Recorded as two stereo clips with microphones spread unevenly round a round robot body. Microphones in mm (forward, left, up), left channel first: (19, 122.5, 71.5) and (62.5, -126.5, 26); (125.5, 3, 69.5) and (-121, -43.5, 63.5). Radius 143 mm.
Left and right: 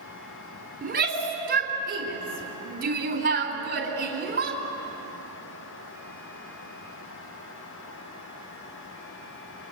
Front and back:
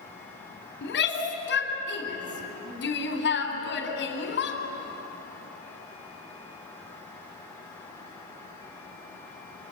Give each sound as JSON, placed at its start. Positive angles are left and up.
{"t": 0.8, "sound": "a shout", "azimuth_deg": -35, "distance_m": 3.5}